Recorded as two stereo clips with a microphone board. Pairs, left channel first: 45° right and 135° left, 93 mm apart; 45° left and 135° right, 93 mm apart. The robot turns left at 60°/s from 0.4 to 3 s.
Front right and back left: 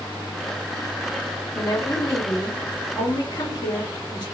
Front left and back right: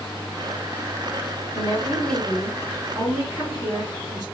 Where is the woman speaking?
Straight ahead, 1.9 m; by 4.2 s 90° right, 1.9 m.